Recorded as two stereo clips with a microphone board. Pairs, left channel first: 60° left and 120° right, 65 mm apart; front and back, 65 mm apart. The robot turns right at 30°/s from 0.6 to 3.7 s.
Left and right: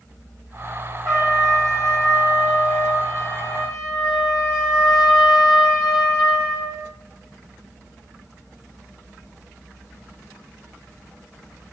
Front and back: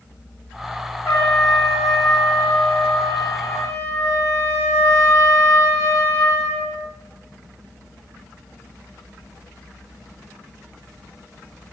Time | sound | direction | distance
1.1 | a trumpet | 40° right | 5 m